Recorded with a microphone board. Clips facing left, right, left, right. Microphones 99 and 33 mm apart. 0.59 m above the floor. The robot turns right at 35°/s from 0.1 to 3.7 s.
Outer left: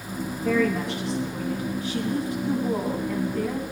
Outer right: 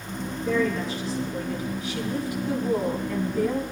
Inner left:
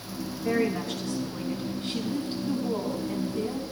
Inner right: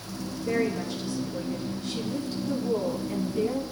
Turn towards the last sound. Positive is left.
turn(degrees=-170)